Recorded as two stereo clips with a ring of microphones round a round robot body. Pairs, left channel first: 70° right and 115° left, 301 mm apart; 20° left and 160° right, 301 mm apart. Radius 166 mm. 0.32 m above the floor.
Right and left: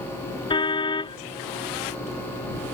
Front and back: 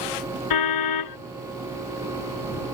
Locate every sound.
0.5 s a car horn: 10° left